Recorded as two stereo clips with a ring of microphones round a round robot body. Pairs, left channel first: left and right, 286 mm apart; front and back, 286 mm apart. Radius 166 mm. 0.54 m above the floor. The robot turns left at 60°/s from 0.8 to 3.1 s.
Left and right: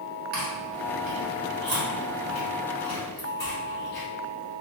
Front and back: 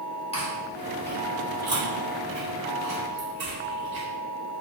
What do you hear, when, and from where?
0.3 s chewing: 60° right, 1.5 m; by 4.1 s 165° left, 1.5 m